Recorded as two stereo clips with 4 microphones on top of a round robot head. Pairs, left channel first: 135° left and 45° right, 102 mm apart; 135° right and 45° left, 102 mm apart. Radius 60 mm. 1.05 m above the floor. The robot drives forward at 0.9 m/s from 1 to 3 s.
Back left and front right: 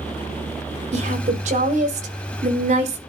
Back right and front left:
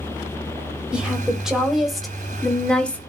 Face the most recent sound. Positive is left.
turn(degrees=-60)